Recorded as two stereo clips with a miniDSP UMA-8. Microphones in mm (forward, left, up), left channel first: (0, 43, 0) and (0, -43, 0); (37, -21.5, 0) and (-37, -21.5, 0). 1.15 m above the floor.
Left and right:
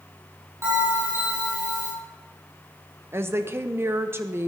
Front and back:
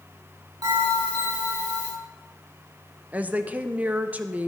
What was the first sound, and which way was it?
A bell, 150° right.